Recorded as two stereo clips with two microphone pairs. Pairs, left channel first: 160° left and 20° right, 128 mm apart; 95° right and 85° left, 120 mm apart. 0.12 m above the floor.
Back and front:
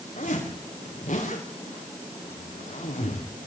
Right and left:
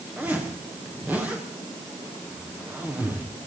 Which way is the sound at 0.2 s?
165° left.